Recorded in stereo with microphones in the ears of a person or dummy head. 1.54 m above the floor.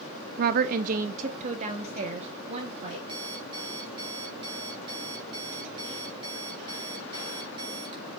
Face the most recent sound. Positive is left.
turn(degrees=-30)  # may be behind; listen again after turning